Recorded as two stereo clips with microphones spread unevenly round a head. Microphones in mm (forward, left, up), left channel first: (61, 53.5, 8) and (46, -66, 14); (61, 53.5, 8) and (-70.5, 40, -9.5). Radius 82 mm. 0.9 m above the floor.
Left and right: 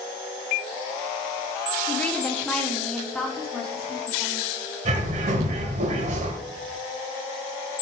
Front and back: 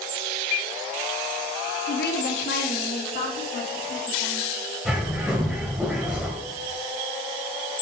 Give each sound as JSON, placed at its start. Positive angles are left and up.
{"t": 1.9, "sound": "a woman speaking", "azimuth_deg": 5, "distance_m": 0.9}
{"t": 4.8, "sound": "a bird", "azimuth_deg": -85, "distance_m": 1.2}